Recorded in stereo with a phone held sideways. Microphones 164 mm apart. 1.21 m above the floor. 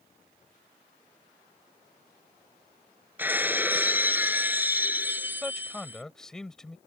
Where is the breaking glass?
10° right (ahead or behind).